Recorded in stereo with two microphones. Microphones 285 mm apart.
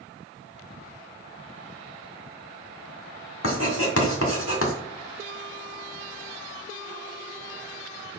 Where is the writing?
50° left (ahead or behind), 1.7 m.